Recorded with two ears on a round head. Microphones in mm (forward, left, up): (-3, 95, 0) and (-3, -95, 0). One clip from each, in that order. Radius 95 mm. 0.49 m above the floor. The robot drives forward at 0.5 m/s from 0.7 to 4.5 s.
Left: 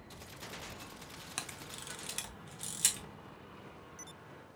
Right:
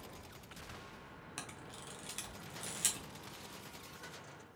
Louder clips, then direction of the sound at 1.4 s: Left 5 dB; 20° left (ahead or behind).